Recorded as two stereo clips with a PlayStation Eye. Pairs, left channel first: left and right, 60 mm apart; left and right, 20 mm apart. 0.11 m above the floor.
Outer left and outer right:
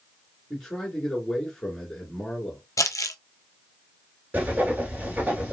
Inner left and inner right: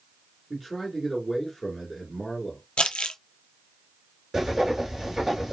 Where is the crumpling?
70° left (ahead or behind), 0.5 m.